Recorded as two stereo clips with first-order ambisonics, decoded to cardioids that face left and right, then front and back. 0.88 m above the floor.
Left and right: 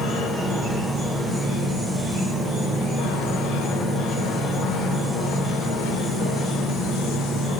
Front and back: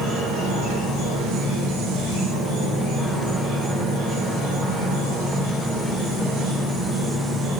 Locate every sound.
0.0 s an insect: 5° left, 1.1 m